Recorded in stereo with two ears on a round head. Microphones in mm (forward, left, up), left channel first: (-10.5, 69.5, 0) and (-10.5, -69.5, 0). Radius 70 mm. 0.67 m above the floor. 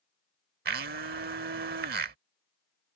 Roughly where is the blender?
Right.